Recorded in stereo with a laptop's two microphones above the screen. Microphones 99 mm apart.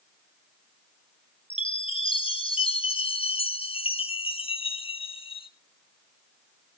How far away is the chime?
About 1.4 m.